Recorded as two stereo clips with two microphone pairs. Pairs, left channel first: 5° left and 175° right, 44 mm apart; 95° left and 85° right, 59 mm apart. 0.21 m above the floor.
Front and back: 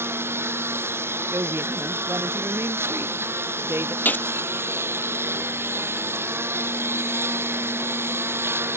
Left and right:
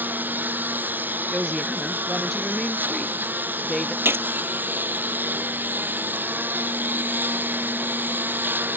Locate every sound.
0.0 s a lawn mower: 145° right
1.3 s a woman speaking: straight behind
4.0 s a gunshot: 40° right